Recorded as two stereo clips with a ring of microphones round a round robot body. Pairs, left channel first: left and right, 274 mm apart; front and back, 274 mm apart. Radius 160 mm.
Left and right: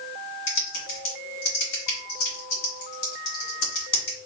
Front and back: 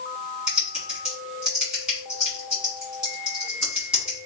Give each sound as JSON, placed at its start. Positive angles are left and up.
{"t": 0.5, "sound": "typing on a keyboard", "azimuth_deg": 90, "distance_m": 2.0}